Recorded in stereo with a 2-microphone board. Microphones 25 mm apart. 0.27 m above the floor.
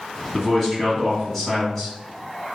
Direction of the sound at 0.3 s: 10° left (ahead or behind).